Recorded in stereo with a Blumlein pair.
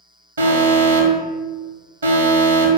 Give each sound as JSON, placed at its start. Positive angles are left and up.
{"t": 0.4, "sound": "an alarm", "azimuth_deg": -70, "distance_m": 0.9}